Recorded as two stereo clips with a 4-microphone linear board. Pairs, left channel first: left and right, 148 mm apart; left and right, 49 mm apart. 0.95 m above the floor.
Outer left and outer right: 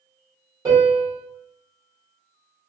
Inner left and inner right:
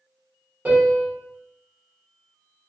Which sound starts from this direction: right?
A piano, at 0.7 s.